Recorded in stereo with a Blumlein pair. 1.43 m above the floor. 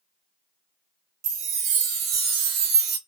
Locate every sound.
1.2 s a chime: 35° right, 0.6 m